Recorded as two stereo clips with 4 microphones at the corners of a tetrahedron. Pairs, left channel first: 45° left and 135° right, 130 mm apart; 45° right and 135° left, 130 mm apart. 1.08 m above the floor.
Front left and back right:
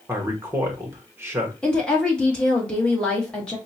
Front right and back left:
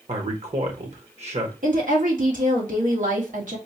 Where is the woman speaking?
130° left, 1.4 m.